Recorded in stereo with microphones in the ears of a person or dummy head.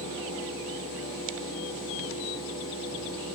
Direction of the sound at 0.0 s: 65° left (ahead or behind).